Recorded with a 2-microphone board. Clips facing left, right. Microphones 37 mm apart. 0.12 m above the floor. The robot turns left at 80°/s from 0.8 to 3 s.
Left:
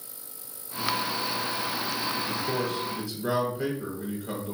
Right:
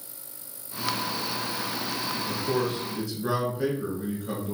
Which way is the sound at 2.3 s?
20° right (ahead or behind).